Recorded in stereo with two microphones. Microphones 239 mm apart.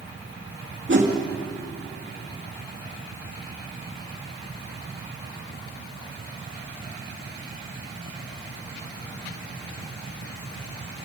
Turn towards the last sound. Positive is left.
turn(degrees=-50)  # may be behind; listen again after turning